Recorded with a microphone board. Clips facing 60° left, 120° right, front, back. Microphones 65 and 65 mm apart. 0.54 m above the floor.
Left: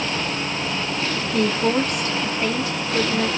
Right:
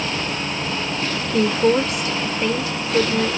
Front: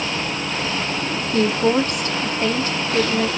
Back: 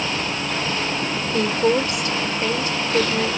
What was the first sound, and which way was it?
A woman speaking, 25° right.